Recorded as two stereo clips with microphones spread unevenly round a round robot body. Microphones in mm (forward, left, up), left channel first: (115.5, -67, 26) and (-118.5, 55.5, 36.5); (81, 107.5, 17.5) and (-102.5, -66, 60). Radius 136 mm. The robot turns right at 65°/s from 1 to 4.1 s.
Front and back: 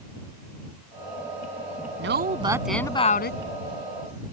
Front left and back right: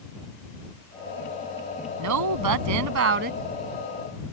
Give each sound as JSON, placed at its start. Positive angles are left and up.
{"t": 2.0, "sound": "a woman speaking", "azimuth_deg": -165}